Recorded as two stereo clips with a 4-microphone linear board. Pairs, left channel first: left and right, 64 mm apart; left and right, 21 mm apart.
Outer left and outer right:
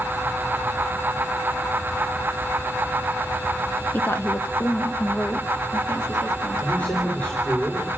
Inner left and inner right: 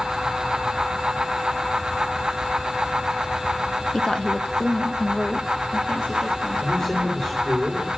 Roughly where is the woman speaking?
Left.